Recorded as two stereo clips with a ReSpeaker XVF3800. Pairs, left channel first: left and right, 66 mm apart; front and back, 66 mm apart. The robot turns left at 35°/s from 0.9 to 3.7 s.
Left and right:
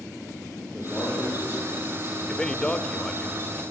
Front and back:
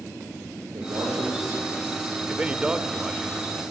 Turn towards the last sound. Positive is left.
turn(degrees=100)